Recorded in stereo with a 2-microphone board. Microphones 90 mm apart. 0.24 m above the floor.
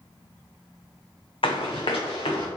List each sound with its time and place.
1.4 s running footsteps: 80° left, 0.9 m; by 2.5 s 70° left (ahead or behind), 1.6 m